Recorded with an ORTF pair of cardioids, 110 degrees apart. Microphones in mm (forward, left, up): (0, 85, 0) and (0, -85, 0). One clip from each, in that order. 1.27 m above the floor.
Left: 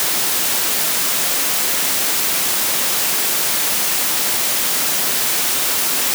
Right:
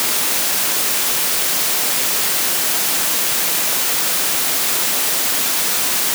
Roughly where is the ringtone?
No ringtone in this recording.